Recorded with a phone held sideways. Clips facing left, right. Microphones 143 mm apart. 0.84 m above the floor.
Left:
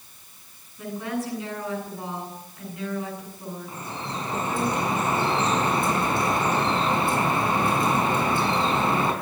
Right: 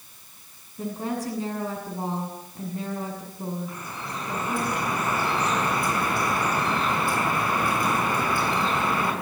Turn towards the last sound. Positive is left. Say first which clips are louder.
# left 2 dB
turn(degrees=25)  # may be behind; listen again after turning